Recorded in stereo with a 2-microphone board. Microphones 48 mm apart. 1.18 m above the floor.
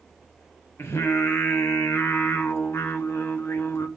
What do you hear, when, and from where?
0.8 s singing: 60° left (ahead or behind), 1.1 m